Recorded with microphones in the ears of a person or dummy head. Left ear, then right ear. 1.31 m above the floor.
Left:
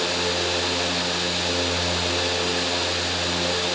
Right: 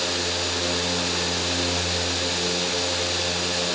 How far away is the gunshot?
I don't hear a gunshot.